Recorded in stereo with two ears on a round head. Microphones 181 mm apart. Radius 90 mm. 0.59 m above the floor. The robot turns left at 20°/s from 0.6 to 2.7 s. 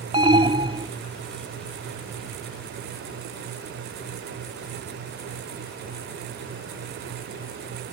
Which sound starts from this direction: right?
An alarm, at 0.1 s.